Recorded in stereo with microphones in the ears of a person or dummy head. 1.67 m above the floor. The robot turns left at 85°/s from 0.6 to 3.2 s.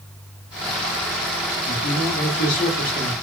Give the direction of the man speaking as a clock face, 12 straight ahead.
8 o'clock.